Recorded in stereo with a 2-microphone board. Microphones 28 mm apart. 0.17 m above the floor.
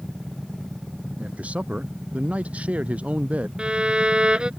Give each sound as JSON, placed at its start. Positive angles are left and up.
{"t": 1.2, "sound": "a man speaking", "side_deg": -60}
{"t": 3.6, "sound": "a violin", "side_deg": -40}